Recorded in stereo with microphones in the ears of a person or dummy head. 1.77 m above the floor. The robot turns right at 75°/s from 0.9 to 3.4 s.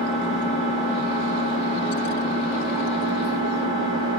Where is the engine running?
60° left, 1.1 m; by 4.2 s 110° right, 1.1 m.